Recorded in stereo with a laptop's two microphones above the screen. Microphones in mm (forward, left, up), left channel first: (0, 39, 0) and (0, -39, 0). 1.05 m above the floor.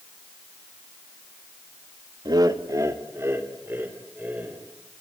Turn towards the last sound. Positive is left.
turn(degrees=-20)  # may be behind; listen again after turning